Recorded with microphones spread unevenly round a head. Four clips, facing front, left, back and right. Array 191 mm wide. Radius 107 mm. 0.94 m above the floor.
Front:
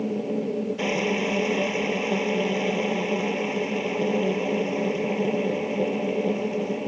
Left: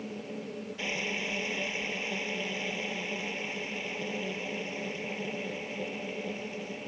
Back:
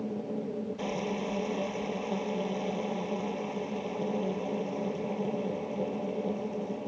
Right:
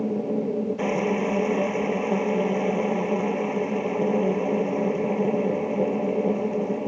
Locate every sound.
0.0 s a machine running: 50° right